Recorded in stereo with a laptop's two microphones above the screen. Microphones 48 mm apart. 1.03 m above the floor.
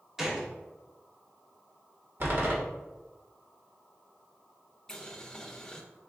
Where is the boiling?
10° left (ahead or behind), 0.5 m.